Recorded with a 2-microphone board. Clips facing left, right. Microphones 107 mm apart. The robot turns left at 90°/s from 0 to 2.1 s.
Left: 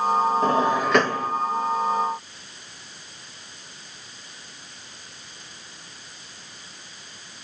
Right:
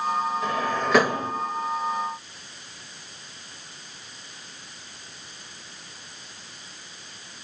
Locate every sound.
0.4 s a drawer: 40° left (ahead or behind), 1.1 m; by 1.3 s 30° right (ahead or behind), 1.1 m